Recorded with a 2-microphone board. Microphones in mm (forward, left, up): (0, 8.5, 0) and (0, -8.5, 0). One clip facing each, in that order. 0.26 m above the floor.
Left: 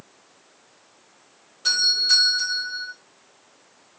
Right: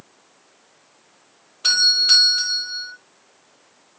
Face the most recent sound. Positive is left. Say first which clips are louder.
# right 4 dB
turn(degrees=-80)